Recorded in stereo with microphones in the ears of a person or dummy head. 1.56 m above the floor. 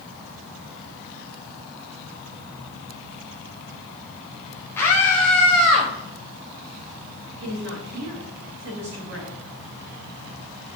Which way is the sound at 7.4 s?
60° right (ahead or behind).